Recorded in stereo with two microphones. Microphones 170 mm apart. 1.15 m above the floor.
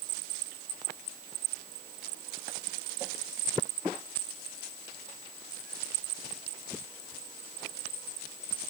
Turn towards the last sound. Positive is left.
No sound to turn to.